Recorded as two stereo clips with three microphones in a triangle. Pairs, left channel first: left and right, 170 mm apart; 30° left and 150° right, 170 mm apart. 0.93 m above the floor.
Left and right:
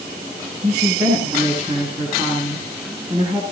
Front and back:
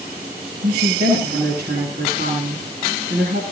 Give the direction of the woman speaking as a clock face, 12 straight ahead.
5 o'clock.